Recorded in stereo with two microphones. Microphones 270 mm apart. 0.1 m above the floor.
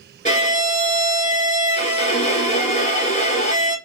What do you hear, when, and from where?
0.2 s a violin: 25° left (ahead or behind), 1.1 m